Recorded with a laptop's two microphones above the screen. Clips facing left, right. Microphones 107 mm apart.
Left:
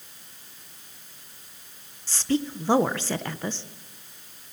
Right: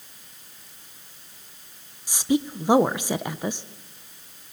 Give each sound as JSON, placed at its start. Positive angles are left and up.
{"t": 2.1, "sound": "a woman speaking", "side_deg": -15, "distance_m": 0.6}